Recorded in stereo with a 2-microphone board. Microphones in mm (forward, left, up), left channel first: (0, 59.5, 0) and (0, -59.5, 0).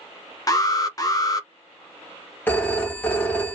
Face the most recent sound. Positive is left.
turn(degrees=15)  # may be behind; listen again after turning